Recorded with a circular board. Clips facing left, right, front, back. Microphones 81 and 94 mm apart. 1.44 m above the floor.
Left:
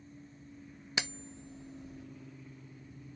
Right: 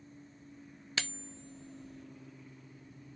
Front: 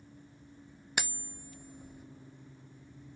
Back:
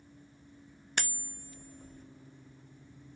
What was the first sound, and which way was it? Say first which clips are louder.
Cutlery clinking: left 2 dB, front 1 dB; 60° left.